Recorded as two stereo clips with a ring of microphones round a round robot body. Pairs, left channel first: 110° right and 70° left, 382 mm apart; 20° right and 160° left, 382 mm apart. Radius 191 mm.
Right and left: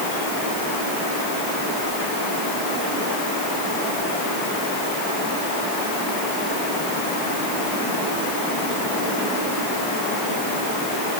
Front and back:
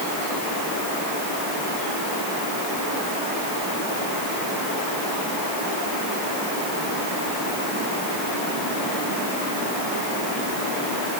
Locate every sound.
Only background noise.